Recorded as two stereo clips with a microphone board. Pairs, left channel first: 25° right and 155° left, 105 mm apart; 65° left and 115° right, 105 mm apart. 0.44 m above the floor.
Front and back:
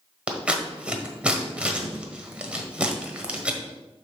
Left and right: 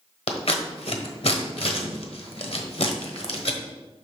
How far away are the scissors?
About 1.2 m.